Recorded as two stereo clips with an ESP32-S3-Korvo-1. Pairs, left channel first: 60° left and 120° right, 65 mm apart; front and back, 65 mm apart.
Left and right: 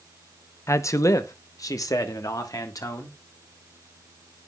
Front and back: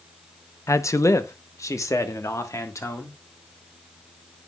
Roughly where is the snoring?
No snoring in this recording.